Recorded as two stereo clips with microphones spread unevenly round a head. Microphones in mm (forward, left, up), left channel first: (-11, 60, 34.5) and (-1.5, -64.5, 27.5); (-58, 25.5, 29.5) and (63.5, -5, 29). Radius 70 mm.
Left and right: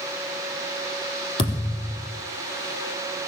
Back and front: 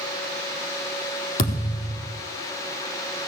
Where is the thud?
140° left, 4.5 m.